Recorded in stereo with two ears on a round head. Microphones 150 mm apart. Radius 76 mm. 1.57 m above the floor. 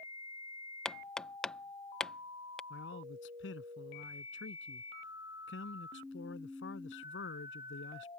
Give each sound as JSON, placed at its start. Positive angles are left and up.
{"t": 0.8, "sound": "hammering", "side_deg": 5}
{"t": 2.7, "sound": "a man speaking", "side_deg": 85}